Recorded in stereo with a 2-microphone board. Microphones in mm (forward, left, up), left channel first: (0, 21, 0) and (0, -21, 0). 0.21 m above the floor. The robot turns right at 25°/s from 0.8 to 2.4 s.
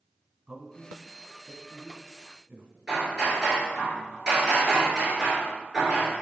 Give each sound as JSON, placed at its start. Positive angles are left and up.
{"t": 0.5, "sound": "a man speaking", "side_deg": -20, "distance_m": 1.4}
{"t": 2.9, "sound": "hammering", "side_deg": -10, "distance_m": 3.0}